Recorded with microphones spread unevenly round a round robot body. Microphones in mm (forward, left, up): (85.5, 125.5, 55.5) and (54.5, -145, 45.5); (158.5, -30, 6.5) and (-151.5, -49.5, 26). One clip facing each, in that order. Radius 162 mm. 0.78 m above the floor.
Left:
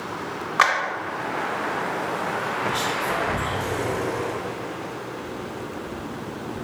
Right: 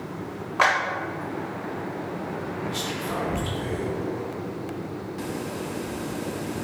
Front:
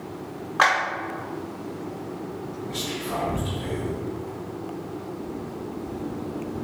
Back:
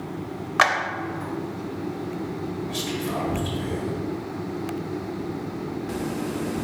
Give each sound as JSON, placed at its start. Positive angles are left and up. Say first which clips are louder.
{"t": 0.6, "sound": "a clap", "louder": "right 2 dB, even", "azimuth_deg": 145, "distance_m": 0.5}
{"t": 2.7, "sound": "whispering", "louder": "left 2 dB, back 3 dB", "azimuth_deg": -125, "distance_m": 1.7}